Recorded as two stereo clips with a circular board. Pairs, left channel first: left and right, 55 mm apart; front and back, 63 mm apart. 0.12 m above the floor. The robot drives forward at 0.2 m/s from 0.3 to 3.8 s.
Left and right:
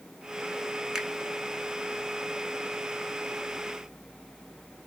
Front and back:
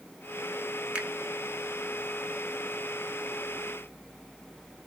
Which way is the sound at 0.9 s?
150° right.